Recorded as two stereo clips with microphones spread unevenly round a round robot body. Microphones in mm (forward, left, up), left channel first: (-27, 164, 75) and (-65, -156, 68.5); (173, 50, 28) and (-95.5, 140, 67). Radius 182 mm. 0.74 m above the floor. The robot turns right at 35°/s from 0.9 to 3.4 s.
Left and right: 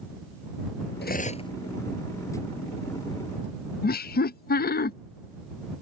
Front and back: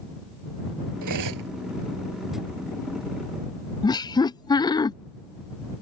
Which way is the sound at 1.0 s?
145° left.